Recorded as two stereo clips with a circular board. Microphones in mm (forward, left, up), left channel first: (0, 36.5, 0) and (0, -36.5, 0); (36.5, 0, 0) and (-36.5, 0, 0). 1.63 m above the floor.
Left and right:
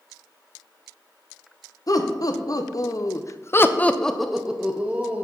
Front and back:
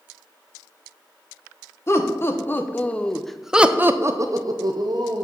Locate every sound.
1.9 s laughter: 55° left, 1.1 m; by 5.2 s 160° right, 0.9 m